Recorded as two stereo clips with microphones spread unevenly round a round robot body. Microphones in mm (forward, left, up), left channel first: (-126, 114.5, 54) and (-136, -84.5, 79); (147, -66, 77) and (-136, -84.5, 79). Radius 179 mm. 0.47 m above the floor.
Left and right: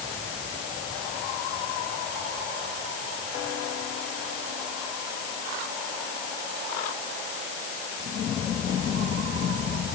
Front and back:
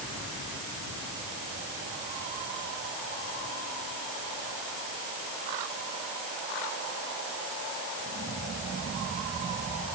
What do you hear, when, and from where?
Only background noise.